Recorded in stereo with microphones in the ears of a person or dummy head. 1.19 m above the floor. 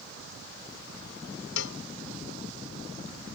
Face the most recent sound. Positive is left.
turn(degrees=70)  # may be behind; listen again after turning